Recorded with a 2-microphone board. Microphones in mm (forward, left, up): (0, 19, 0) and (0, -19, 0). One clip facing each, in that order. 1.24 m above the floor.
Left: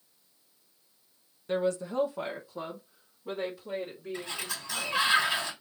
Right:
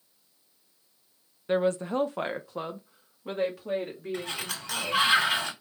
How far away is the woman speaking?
About 0.5 m.